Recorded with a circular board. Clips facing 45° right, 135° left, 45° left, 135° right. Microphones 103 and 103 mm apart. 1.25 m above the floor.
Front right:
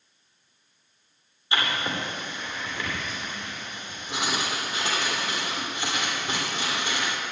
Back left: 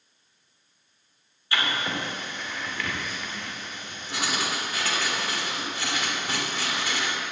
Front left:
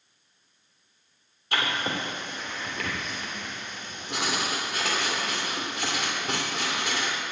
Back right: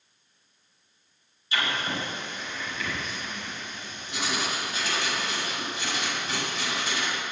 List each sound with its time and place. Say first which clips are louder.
1.5 s writing: even, front left 1 dB; 20° left, 3 m